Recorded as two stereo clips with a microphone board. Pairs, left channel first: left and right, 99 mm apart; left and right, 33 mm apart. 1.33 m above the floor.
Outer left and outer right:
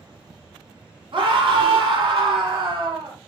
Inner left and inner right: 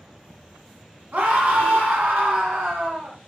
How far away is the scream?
About 1.3 m.